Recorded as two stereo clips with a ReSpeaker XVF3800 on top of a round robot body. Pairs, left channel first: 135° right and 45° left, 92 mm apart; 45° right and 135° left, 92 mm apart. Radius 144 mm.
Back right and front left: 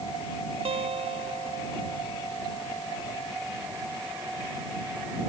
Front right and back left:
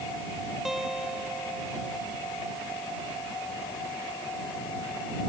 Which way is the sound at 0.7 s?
50° left.